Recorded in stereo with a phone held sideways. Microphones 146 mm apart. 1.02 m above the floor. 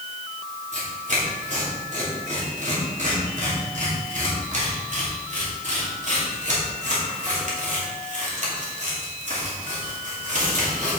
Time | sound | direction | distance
0.7 | tearing paper | 50° right (ahead or behind) | 3 m